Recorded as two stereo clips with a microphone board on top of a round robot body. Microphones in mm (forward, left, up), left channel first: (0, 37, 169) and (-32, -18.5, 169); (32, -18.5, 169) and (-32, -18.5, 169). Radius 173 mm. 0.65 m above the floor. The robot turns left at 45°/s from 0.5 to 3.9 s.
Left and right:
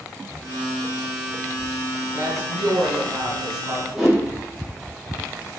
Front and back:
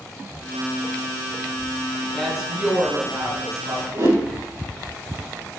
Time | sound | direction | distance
2.1 | a woman speaking | 90° right | 2.5 m
3.9 | a whoosh | 150° left | 3.5 m